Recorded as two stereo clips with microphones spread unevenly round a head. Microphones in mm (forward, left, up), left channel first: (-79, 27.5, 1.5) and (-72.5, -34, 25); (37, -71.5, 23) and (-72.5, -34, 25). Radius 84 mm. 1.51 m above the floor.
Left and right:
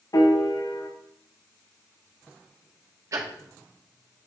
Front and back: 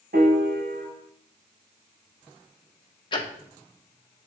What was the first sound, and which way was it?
A piano, 125° left.